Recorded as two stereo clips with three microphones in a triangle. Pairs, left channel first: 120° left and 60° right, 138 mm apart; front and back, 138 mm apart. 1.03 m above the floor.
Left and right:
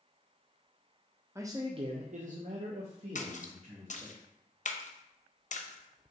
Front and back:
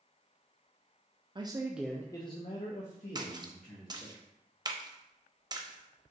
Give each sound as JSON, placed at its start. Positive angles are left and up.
{"t": 1.4, "sound": "a man speaking", "azimuth_deg": -125, "distance_m": 0.6}
{"t": 3.1, "sound": "a splash", "azimuth_deg": 125, "distance_m": 0.5}